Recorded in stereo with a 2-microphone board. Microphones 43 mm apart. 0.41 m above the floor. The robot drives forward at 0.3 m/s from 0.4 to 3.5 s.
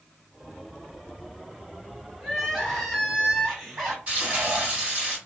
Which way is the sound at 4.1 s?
35° right (ahead or behind).